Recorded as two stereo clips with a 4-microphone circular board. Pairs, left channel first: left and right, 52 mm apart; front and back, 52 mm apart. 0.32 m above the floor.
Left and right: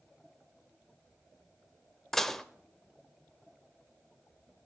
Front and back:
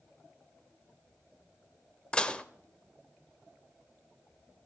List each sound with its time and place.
2.1 s dishes clattering: 25° left, 0.6 m